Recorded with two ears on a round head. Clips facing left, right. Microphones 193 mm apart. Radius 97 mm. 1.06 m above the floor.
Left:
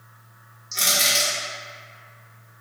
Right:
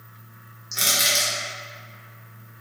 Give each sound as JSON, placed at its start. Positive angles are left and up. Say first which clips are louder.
{"t": 0.7, "sound": "crushing", "louder": "left 1 dB", "side_deg": -10, "distance_m": 1.4}